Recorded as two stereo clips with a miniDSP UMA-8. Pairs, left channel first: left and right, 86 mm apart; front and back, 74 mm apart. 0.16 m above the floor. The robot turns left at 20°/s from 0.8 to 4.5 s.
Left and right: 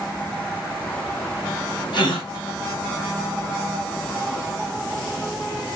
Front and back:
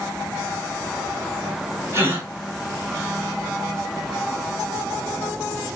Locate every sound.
1.9 s a gasp: 120° left, 1.9 m; by 2.3 s 115° left, 1.9 m